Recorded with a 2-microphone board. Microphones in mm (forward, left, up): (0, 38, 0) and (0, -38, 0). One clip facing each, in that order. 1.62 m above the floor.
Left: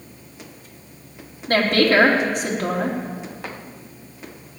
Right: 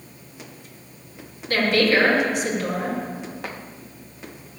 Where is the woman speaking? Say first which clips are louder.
Left 2 dB; 45° left (ahead or behind), 3.5 m.